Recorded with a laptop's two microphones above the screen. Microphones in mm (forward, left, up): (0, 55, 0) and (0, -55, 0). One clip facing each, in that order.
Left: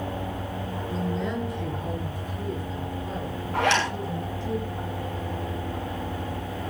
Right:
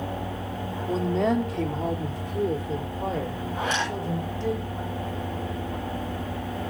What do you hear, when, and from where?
0.9 s a woman speaking: 70° right (ahead or behind), 2 m; by 4.5 s 80° right, 4.5 m
3.5 s a zipper: 70° left (ahead or behind), 6.5 m